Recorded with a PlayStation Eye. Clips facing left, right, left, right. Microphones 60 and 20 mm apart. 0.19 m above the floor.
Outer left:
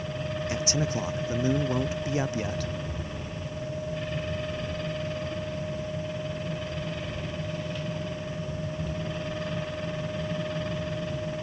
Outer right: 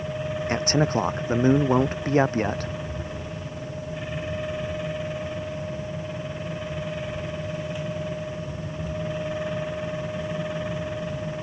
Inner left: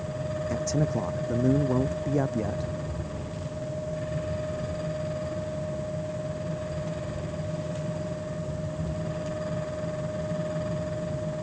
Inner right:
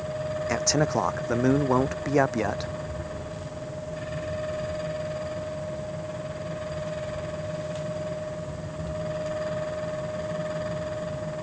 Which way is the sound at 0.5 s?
50° right (ahead or behind).